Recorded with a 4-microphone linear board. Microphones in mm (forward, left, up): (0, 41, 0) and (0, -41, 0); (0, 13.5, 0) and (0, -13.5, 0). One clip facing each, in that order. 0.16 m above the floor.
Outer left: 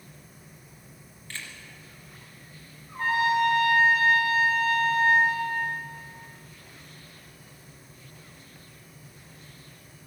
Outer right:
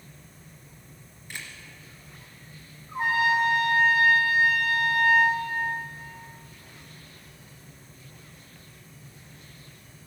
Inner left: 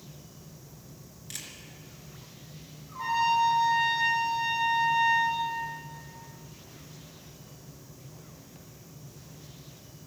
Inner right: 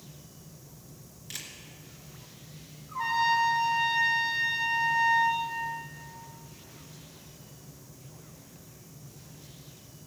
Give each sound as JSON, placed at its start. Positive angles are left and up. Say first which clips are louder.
{"t": 1.3, "sound": "a camera shutter", "louder": "even, inner right 1 dB", "side_deg": -15, "distance_m": 2.0}
{"t": 2.9, "sound": "a trumpet", "louder": "even, even", "side_deg": -20, "distance_m": 6.5}